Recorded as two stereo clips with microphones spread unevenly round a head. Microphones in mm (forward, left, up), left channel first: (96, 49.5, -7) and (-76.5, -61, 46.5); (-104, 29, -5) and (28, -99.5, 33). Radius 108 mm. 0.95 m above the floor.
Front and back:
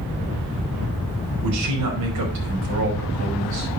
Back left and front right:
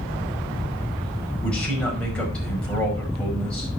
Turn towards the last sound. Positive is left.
turn(degrees=-140)